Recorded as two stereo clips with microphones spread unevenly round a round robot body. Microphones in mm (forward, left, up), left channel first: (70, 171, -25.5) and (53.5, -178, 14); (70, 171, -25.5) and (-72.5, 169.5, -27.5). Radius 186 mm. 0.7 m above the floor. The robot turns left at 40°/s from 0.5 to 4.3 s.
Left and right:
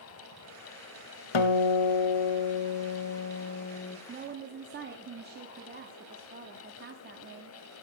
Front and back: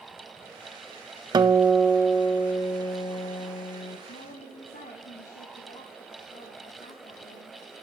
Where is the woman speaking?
20° right, 1.0 m; by 7.6 s 30° right, 1.0 m.